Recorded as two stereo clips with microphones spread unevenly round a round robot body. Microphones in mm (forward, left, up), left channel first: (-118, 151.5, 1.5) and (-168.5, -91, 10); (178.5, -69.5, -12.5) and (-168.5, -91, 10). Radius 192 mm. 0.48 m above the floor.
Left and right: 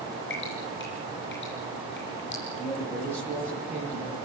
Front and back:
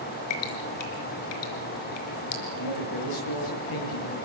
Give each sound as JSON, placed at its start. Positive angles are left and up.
{"t": 0.3, "sound": "dripping", "azimuth_deg": 15, "distance_m": 3.5}
{"t": 2.6, "sound": "a man speaking", "azimuth_deg": -15, "distance_m": 9.5}